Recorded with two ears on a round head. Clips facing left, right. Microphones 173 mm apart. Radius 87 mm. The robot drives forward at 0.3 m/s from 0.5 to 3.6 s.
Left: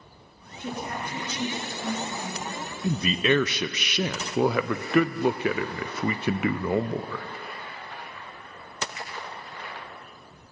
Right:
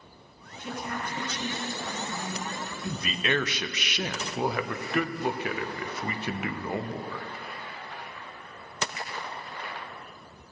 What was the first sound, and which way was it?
A woman speaking, 40° left (ahead or behind).